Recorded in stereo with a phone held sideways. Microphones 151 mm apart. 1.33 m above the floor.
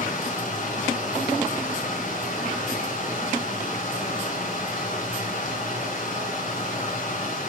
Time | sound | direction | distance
0.0 | running water | 60° left (ahead or behind) | 3 m